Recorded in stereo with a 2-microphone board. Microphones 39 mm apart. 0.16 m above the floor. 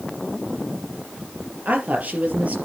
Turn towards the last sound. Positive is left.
turn(degrees=-45)  # may be behind; listen again after turning